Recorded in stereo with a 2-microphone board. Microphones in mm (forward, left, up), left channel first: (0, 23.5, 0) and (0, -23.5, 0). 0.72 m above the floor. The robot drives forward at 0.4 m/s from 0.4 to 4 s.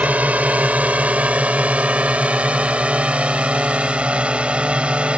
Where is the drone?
30° right (ahead or behind); by 5.2 s 25° right (ahead or behind).